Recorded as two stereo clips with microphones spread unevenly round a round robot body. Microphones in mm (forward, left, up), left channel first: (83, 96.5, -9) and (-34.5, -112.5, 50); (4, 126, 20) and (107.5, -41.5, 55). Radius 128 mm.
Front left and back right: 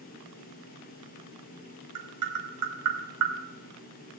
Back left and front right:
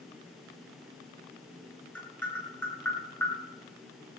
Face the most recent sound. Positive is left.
turn(degrees=-155)